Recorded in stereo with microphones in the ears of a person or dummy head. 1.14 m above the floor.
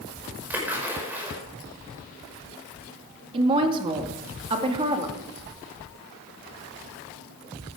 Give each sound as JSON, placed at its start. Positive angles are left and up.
{"t": 0.5, "sound": "a splash", "side_deg": -10, "distance_m": 5.0}
{"t": 3.3, "sound": "a woman speaking", "side_deg": -25, "distance_m": 2.0}